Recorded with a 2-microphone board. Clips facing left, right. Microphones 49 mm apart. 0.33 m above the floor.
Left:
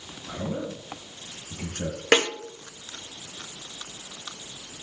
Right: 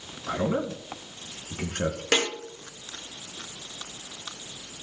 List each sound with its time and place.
0.3 s a man speaking: 75° right (ahead or behind), 4 m
2.1 s a snare drum: 35° left (ahead or behind), 1.8 m